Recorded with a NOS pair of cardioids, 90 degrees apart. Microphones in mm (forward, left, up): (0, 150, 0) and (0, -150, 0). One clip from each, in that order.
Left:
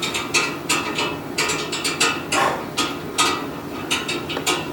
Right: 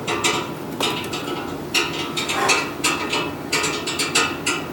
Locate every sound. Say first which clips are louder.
2.3 s breathing: right 4 dB; 60° left, 5.5 m